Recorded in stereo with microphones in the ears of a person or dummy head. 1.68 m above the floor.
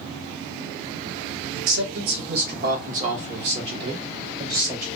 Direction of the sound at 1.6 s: 60° right (ahead or behind).